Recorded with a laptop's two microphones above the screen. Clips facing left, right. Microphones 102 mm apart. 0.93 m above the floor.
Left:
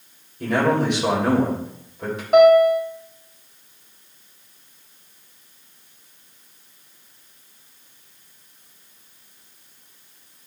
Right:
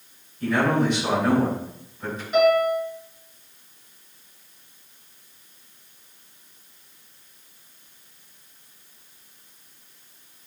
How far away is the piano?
About 1.4 m.